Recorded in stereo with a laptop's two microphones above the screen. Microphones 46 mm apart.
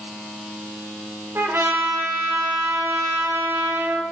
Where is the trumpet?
65° right (ahead or behind), 1.1 m.